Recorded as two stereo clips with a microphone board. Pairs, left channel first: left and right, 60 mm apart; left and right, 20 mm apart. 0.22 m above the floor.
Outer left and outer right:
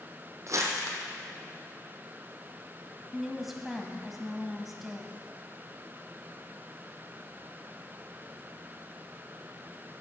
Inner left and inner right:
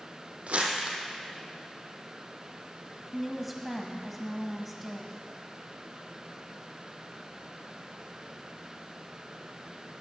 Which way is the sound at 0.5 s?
55° right (ahead or behind).